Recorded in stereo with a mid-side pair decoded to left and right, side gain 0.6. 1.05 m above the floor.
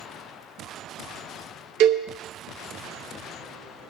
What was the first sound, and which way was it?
A cowbell, 70° right.